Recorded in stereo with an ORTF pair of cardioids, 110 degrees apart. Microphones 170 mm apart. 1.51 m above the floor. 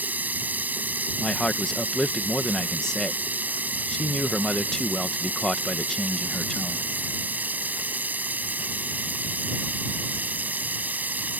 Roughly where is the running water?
Ahead.